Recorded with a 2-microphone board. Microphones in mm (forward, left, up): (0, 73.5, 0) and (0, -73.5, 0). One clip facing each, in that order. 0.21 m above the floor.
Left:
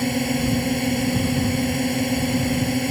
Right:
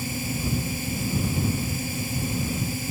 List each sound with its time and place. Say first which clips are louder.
0.0 s a drone: left 9 dB; 70° left (ahead or behind)